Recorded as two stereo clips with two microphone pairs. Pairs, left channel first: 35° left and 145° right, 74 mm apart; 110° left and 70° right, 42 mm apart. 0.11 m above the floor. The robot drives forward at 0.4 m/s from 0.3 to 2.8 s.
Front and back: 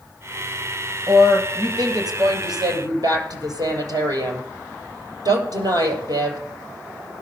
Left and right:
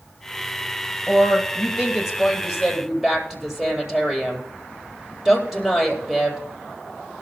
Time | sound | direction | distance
1.1 | a woman speaking | 140° right | 3 m